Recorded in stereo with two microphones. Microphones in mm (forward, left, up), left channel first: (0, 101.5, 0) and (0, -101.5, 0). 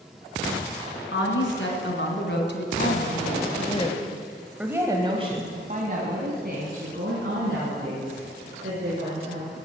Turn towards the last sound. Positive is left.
turn(degrees=-65)  # may be behind; listen again after turning